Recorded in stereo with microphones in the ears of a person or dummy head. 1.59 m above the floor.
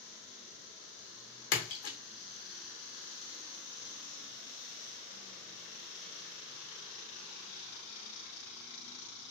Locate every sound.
1.5 s a splash: 70° left (ahead or behind), 0.7 m